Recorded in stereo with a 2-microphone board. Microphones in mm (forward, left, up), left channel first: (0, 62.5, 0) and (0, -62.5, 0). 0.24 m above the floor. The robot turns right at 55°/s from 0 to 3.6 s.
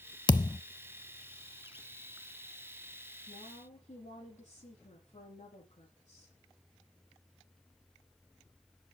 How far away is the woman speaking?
About 7 m.